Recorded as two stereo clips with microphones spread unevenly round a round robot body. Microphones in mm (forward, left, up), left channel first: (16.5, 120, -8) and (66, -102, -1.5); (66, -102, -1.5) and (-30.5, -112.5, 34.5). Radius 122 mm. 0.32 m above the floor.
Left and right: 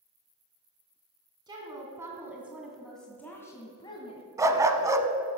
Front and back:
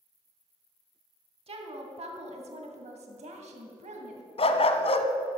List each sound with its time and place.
1.5 s a woman speaking: 150° right, 2.5 m; by 4.2 s 165° left, 2.0 m
4.4 s a dog barking: straight ahead, 0.9 m